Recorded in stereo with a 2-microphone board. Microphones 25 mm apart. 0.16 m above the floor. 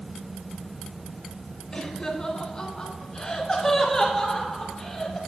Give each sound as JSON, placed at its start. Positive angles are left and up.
{"t": 1.7, "sound": "laughter", "side_deg": 30, "distance_m": 1.2}